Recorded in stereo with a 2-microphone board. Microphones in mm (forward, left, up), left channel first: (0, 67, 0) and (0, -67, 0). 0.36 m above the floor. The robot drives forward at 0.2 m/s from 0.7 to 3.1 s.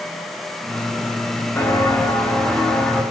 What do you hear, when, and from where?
1.6 s footsteps: 20° left (ahead or behind), 4 m; by 3.0 s 5° left (ahead or behind), 5.5 m